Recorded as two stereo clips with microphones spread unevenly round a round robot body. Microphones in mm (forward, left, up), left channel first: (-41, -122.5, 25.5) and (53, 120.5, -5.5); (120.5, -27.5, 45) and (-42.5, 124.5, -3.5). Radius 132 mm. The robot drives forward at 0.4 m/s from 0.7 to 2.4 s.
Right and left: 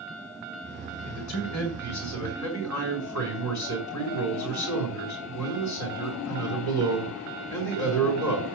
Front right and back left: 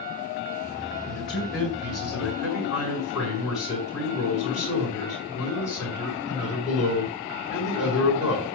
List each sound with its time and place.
1.1 s a man speaking: 135° right, 4.5 m; by 8.4 s 140° right, 5 m